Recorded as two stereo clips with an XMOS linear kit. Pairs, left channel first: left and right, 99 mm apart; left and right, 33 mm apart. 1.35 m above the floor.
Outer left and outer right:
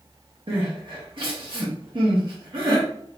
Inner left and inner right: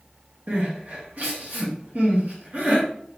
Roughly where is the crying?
Right.